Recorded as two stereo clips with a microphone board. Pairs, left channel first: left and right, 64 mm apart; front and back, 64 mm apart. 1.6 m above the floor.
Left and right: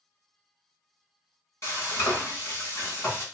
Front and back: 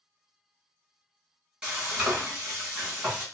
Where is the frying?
115° left, 2 m.